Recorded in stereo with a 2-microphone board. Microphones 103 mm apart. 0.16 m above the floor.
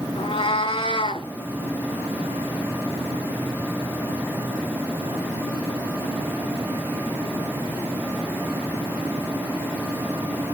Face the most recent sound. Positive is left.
turn(degrees=55)  # may be behind; listen again after turning